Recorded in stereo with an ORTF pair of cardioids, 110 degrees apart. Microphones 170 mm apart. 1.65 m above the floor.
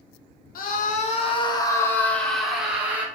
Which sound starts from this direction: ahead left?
A scream, at 0.6 s.